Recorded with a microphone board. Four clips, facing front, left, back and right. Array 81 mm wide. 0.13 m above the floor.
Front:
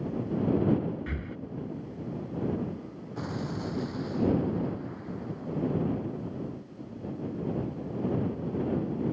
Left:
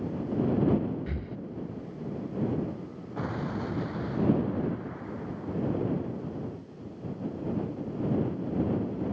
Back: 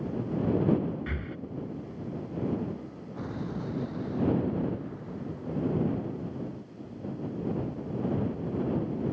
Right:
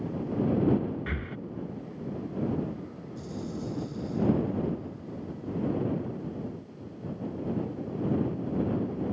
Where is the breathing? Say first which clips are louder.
Right 1 dB, even; 100° right.